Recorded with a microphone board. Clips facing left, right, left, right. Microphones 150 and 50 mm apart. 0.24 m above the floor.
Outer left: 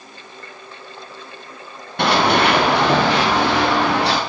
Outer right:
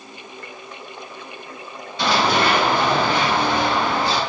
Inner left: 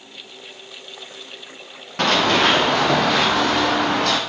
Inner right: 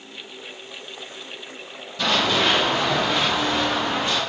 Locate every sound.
2.0 s running footsteps: 60° left (ahead or behind), 4 m; by 4.2 s 70° left (ahead or behind), 4 m